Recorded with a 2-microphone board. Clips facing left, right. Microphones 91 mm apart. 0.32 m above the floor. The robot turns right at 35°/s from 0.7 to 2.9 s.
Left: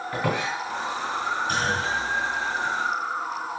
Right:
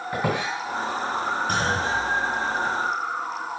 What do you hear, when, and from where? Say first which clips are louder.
0.1 s a squeak: right 1 dB; 15° right (ahead or behind), 2 m
1.5 s a clunk: right 1 dB; 55° right (ahead or behind), 1.8 m; by 2.8 s 35° right (ahead or behind), 1.8 m